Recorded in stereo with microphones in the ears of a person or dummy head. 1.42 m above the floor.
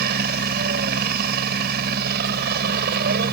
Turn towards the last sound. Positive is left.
turn(degrees=-45)  # may be behind; listen again after turning